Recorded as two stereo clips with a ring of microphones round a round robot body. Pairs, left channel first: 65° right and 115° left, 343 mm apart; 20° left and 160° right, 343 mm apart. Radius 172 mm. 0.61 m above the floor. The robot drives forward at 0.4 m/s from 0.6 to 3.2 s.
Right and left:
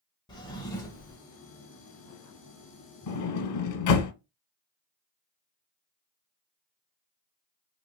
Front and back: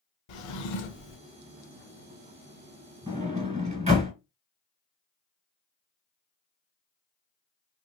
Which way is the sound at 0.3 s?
10° left.